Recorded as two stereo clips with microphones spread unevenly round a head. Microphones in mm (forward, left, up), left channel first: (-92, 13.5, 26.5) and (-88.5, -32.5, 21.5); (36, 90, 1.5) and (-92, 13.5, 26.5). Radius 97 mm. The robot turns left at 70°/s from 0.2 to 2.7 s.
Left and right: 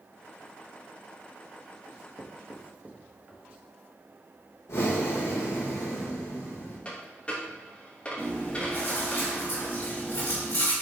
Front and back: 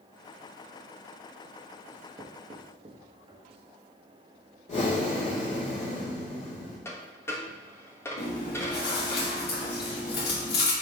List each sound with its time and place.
1.9 s writing: 80° right, 1.3 m; by 3.6 s 140° right, 1.3 m
4.7 s breathing: 75° left, 2.5 m
6.8 s a dropped coin: 105° left, 1.1 m
8.2 s chewing: 45° left, 2.5 m